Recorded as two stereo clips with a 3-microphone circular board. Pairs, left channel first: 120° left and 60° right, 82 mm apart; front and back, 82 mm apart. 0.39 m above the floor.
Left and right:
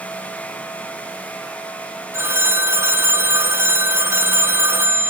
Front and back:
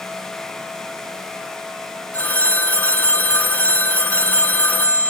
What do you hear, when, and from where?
2.1 s a phone ringing: 45° right, 0.9 m